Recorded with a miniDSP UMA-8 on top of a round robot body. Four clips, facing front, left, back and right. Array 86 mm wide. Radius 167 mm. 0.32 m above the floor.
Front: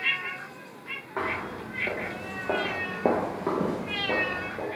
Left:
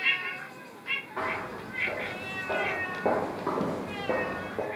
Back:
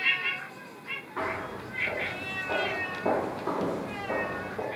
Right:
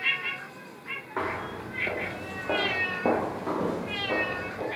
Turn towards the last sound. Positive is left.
turn(degrees=85)